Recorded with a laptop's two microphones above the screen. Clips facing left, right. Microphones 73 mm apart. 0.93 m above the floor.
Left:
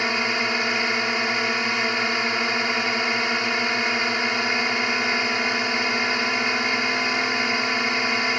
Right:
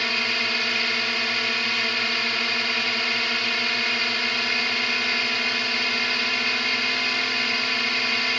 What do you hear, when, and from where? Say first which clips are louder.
0.0 s a drone: left 3 dB; 20° left (ahead or behind)